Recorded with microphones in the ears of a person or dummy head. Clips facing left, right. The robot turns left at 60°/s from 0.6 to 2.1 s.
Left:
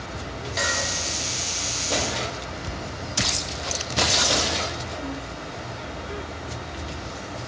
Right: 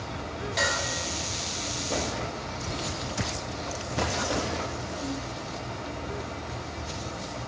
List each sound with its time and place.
0.6 s dishes clattering: centre (ahead or behind), 1.9 m; by 0.8 s 10° right (ahead or behind), 1.9 m